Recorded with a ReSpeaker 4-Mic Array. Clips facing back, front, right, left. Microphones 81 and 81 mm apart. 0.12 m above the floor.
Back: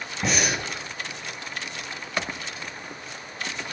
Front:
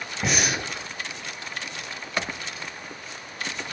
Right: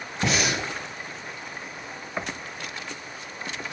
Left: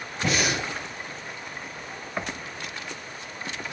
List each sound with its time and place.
0.2 s breathing: 90° right, 1.4 m